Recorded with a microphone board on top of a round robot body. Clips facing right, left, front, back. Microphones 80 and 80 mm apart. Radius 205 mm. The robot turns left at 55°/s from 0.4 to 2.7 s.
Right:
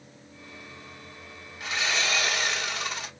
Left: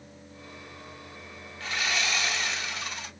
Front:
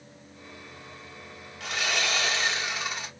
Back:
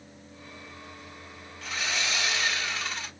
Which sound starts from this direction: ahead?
Sawing, at 1.6 s.